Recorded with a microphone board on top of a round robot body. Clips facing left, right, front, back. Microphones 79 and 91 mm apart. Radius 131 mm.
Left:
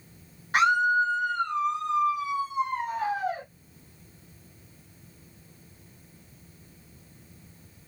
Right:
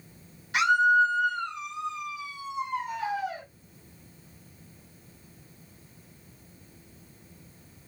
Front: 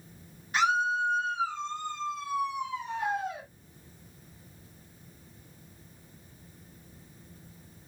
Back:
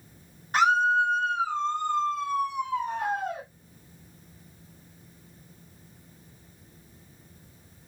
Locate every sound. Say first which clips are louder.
0.5 s a scream: right 1 dB, back 5 dB; 135° left, 1.7 m